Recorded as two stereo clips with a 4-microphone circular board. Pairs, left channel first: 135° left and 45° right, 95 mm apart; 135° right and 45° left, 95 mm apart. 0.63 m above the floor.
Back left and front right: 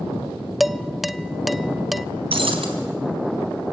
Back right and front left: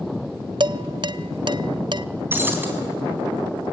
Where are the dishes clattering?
45° left, 0.6 m.